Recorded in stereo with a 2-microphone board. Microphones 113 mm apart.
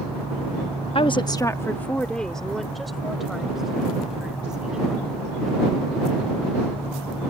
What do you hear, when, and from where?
0.9 s a woman speaking: 55° left (ahead or behind); by 5.0 s 5° right (ahead or behind)